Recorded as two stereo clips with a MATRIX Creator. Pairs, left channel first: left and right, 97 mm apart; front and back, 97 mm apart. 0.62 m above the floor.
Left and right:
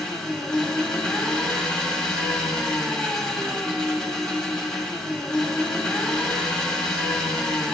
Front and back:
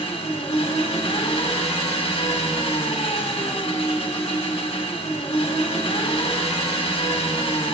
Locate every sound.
0.0 s an engine running: 5° left, 1.2 m